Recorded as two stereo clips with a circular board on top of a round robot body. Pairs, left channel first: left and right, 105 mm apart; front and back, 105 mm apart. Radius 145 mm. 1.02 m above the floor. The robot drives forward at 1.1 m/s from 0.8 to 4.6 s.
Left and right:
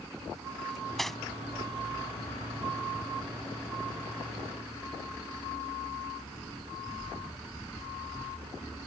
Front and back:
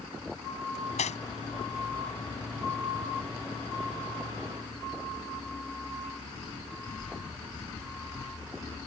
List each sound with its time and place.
0.7 s cutlery clinking: 5° left